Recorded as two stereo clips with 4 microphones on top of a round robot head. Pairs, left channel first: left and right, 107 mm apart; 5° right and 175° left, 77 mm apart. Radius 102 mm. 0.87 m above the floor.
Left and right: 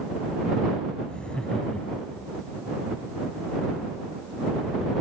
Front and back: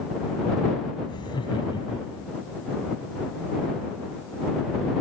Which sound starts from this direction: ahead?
Laughter, at 1.1 s.